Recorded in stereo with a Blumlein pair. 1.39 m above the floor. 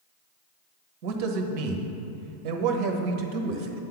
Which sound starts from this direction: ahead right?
A man speaking, at 1.0 s.